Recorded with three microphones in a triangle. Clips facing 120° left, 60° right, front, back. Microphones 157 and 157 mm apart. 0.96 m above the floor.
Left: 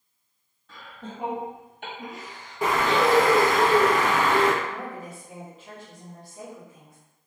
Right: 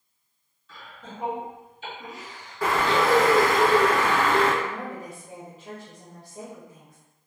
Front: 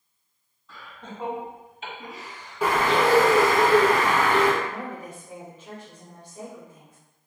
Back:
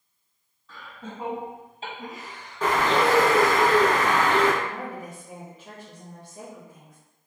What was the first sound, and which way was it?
Laughter, 90° left.